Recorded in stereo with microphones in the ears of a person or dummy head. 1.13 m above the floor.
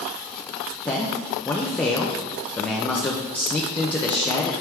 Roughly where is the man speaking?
Centre.